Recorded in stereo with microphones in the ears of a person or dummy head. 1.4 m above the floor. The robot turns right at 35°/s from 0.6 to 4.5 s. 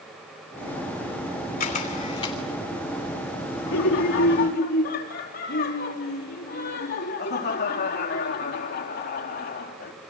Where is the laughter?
75° left (ahead or behind), 4 m; by 9.9 s 50° left (ahead or behind), 4 m.